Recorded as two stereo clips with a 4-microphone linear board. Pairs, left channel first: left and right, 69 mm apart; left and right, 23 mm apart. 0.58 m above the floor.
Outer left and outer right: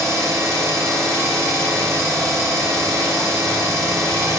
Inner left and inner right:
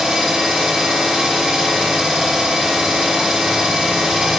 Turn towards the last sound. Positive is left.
turn(degrees=-45)  # may be behind; listen again after turning